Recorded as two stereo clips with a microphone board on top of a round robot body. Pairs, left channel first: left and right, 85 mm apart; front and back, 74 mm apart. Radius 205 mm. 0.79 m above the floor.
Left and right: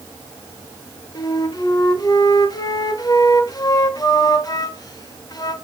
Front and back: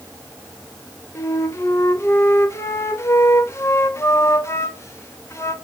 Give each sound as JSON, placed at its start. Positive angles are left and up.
{"t": 1.1, "sound": "a flute", "azimuth_deg": 50, "distance_m": 2.0}